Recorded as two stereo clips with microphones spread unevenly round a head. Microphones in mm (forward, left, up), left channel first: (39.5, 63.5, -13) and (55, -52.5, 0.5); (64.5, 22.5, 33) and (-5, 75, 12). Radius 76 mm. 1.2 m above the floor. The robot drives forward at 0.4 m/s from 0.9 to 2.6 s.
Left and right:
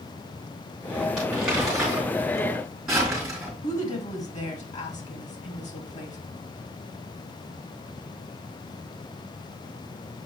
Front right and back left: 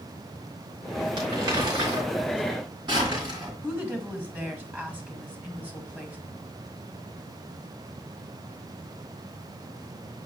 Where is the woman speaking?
75° left, 1.8 m.